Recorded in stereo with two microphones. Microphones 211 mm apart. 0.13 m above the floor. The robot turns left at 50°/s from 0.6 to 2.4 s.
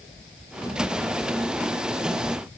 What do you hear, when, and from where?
Only background noise.